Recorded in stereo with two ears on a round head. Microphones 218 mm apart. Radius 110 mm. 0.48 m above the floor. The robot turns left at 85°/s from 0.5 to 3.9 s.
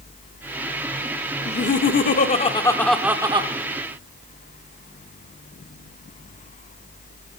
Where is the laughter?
130° left, 0.8 m; by 3.5 s 45° right, 0.8 m.